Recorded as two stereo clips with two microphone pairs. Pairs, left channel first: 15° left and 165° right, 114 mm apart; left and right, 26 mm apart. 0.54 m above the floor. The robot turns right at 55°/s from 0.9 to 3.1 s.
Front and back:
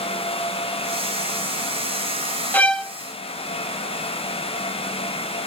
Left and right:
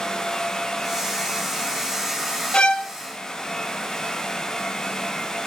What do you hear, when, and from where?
2.5 s a violin: 85° left, 0.6 m; by 2.9 s 105° left, 0.6 m